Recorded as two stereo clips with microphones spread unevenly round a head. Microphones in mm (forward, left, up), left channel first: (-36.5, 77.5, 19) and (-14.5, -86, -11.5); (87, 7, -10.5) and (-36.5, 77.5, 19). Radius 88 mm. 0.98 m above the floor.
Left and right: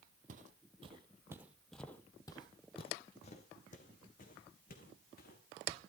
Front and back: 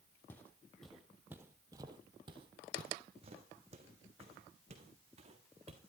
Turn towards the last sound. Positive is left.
turn(degrees=115)